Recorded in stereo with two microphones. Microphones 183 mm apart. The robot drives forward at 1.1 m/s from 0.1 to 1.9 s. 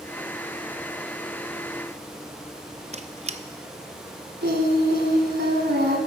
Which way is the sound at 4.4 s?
75° right (ahead or behind).